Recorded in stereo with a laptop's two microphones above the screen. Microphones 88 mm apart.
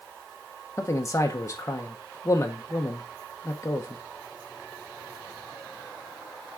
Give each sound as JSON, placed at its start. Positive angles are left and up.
{"t": 0.8, "sound": "a man speaking", "side_deg": 30, "distance_m": 0.9}